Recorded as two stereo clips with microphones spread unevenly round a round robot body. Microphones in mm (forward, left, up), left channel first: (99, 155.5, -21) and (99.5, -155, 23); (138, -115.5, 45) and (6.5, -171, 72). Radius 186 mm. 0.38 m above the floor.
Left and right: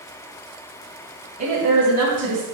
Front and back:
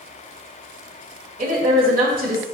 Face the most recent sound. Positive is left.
turn(degrees=-165)